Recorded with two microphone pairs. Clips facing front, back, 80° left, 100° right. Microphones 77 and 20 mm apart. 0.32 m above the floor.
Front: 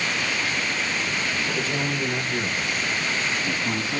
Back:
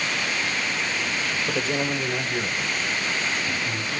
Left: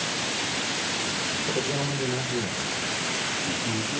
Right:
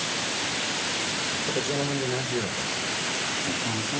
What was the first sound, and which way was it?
A man speaking, straight behind.